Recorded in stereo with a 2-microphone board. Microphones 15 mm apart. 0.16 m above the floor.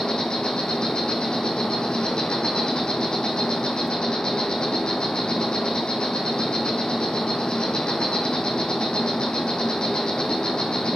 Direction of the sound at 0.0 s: 75° left (ahead or behind).